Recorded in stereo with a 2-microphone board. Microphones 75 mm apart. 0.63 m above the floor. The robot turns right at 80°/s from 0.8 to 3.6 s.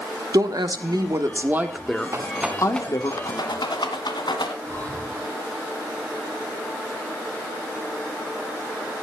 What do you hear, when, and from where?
0.3 s a woman speaking: 90° right, 1.3 m; by 3.1 s 95° left, 1.3 m
2.1 s a rattle: 40° right (ahead or behind), 1.9 m; by 4.5 s 80° left, 1.9 m
4.6 s breathing: 25° left (ahead or behind), 6 m